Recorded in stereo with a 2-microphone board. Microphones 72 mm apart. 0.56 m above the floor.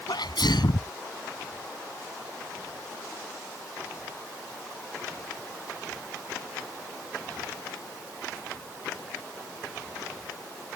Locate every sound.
0.1 s a sneeze: 80° left